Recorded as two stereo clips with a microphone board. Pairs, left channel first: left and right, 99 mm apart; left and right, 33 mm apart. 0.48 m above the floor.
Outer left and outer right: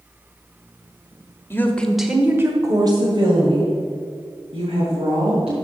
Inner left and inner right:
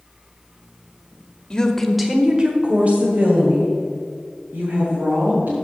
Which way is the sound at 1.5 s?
25° left (ahead or behind).